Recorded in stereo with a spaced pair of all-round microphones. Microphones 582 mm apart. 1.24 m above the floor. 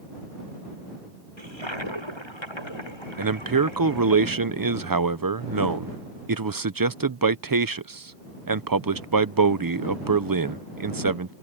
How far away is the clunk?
No clunk in this recording.